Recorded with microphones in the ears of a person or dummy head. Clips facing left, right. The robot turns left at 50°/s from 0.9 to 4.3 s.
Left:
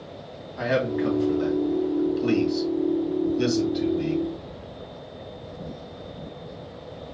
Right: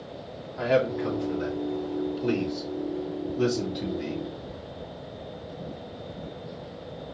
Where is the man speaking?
30° left (ahead or behind), 2 m; by 4.2 s 15° right (ahead or behind), 2 m.